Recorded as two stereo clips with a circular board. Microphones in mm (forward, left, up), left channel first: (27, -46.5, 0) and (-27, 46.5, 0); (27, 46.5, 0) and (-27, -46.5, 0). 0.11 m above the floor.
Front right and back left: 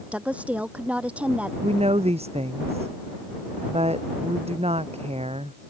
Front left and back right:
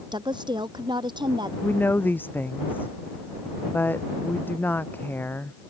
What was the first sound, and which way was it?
A woman speaking, 165° right.